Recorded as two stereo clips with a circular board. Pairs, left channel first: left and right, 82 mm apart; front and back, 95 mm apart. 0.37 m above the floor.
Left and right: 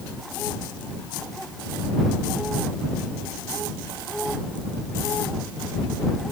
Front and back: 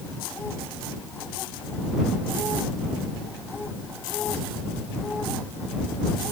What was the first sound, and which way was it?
Only background noise.